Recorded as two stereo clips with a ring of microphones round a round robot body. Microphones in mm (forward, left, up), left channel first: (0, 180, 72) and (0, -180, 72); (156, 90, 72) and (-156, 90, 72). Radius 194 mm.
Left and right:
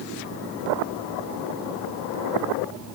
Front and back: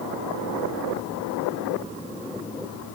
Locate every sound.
Only background noise.